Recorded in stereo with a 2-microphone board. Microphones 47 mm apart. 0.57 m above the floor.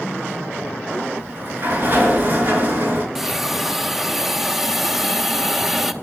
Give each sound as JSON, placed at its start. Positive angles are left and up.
{"t": 1.2, "sound": "a sliding door", "side_deg": -40, "distance_m": 3.0}
{"t": 3.1, "sound": "a hiss", "side_deg": -5, "distance_m": 0.8}